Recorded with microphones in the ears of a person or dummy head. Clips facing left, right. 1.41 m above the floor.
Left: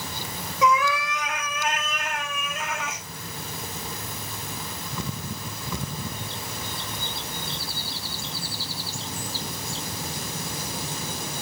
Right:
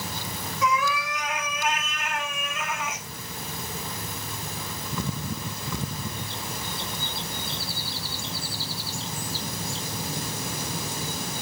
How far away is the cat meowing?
About 2.5 m.